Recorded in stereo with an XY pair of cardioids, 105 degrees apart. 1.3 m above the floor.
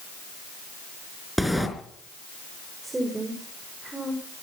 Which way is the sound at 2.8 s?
20° right.